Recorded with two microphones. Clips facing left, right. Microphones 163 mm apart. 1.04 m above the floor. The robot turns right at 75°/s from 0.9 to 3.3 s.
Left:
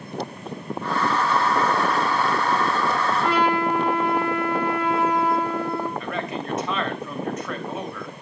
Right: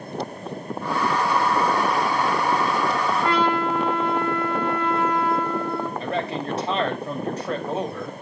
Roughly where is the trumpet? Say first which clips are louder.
Left 1 dB; centre.